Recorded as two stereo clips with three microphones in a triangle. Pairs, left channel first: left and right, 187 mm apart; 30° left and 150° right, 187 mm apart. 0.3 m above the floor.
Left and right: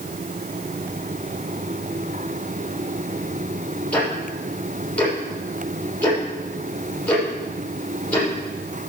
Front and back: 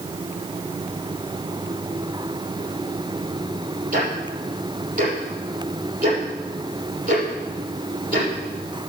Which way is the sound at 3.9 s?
170° left.